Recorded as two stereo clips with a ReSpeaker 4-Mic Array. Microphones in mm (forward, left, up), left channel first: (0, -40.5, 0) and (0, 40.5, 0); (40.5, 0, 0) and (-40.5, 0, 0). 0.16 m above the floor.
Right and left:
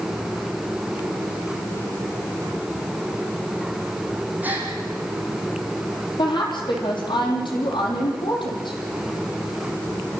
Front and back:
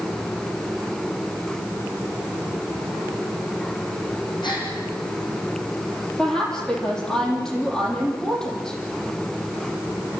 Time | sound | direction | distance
4.4 | a gasp | 20° left | 6 m
6.2 | a woman speaking | 80° right | 6.5 m